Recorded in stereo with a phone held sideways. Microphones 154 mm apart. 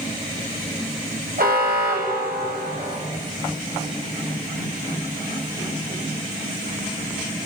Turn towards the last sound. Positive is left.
turn(degrees=-85)